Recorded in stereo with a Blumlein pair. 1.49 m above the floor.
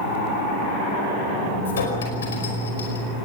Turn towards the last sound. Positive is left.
turn(degrees=65)